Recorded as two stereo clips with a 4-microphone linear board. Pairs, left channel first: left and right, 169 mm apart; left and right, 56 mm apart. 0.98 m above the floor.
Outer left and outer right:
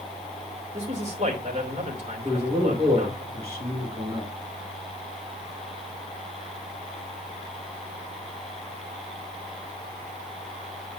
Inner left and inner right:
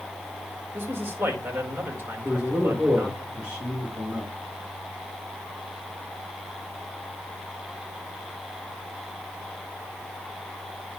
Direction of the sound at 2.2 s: 15° right (ahead or behind).